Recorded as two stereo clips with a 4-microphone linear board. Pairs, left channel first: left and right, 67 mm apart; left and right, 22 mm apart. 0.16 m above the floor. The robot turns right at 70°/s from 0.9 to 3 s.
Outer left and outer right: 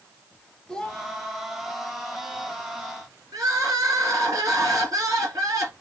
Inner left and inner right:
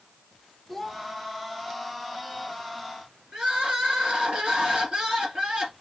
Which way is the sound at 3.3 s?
55° right (ahead or behind).